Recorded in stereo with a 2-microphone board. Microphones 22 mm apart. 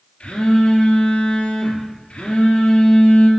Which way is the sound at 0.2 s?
70° left (ahead or behind).